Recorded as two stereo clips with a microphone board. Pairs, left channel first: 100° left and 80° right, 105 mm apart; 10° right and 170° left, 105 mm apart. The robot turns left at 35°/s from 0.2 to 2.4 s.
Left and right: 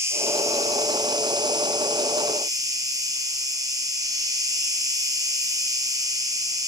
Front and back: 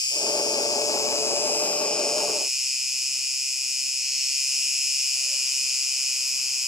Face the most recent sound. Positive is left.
turn(degrees=-105)